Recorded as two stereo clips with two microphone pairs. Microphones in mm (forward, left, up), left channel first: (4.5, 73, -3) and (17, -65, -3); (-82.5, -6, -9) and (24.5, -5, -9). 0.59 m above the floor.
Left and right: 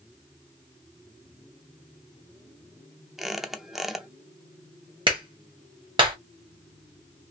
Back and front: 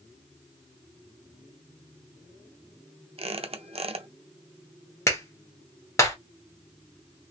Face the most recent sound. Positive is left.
turn(degrees=-125)